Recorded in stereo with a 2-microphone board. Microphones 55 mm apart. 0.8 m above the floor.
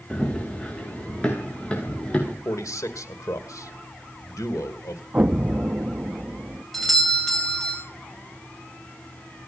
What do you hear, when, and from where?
0.1 s running footsteps: 15° left (ahead or behind), 5 m
2.5 s a man speaking: 80° left, 2.5 m
5.1 s an explosion: 30° right (ahead or behind), 0.8 m
6.7 s a doorbell: centre (ahead or behind), 5 m